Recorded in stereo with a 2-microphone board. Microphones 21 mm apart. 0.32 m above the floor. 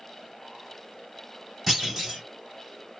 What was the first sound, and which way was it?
A clunk, 5° right (ahead or behind).